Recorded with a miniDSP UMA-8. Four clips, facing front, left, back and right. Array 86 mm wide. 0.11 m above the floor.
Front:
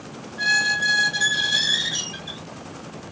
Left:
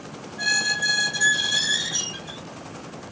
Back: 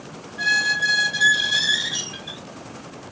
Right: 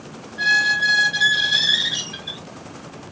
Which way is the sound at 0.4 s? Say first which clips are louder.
Right 7 dB, even; 90° right.